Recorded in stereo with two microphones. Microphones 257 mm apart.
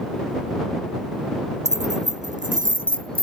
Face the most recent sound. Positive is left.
turn(degrees=-35)  # may be behind; listen again after turning